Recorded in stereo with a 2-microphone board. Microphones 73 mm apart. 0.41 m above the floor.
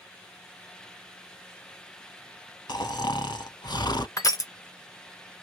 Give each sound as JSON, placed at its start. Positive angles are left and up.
{"t": 2.7, "sound": "snoring", "side_deg": 70, "distance_m": 0.6}
{"t": 4.2, "sound": "crushing", "side_deg": 50, "distance_m": 0.6}